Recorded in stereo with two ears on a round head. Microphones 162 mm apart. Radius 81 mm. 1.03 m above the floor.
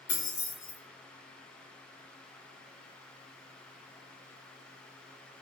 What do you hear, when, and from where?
0.1 s keys jangling: 75° left (ahead or behind), 1.7 m